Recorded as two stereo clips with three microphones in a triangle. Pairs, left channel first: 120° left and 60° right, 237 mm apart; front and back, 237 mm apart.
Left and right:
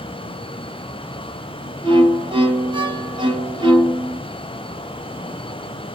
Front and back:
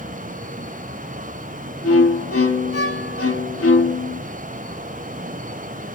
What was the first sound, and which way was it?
A violin, 10° left.